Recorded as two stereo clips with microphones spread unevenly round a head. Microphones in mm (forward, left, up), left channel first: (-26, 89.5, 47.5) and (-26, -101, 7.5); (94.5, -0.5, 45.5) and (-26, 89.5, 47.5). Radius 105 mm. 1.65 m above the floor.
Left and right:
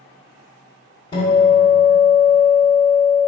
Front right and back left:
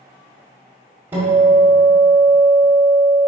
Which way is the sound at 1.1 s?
75° left.